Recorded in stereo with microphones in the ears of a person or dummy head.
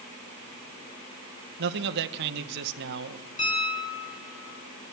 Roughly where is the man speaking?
Right.